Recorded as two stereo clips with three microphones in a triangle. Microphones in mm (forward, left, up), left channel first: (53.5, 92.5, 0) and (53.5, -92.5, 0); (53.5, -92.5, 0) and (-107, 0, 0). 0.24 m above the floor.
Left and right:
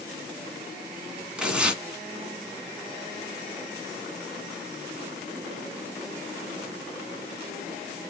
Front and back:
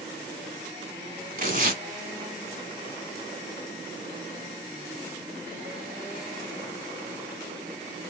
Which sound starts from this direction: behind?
Tearing paper, at 1.4 s.